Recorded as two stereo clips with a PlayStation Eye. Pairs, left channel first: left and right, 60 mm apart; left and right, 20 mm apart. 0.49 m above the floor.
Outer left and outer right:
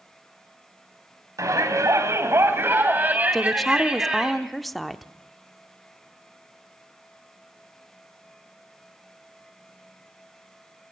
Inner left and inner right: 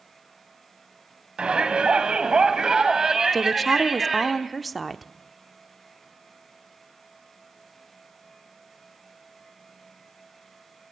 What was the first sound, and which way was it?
A shout, 70° right (ahead or behind).